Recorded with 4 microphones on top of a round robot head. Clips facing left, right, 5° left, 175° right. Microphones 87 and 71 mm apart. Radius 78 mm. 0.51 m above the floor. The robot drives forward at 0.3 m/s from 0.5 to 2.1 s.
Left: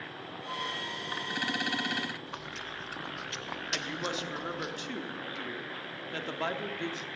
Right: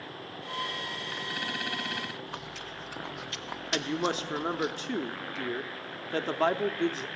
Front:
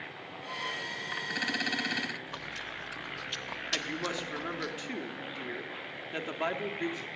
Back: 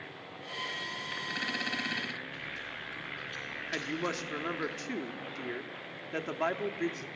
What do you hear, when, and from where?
2.3 s chewing: straight ahead, 0.7 m
3.7 s a woman speaking: 100° right, 0.8 m